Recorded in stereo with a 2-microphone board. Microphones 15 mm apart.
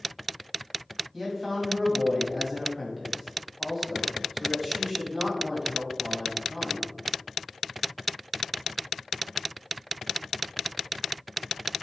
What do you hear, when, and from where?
1.1 s a man speaking: 10° right (ahead or behind), 3 m